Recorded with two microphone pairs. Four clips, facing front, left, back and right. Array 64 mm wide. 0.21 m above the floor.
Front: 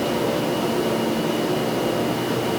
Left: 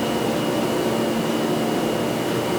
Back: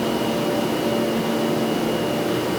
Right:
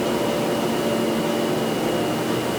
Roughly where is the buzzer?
No buzzer in this recording.